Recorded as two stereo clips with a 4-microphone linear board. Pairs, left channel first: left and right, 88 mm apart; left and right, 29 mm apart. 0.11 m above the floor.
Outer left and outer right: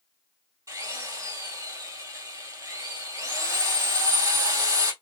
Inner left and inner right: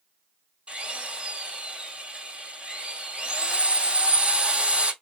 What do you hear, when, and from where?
0.7 s a drill: 40° right (ahead or behind), 1.8 m